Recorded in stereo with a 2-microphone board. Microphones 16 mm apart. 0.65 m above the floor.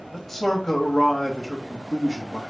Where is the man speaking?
20° left (ahead or behind), 1.1 m.